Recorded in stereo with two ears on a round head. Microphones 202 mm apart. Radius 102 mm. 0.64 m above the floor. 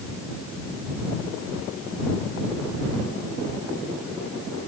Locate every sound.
Only background noise.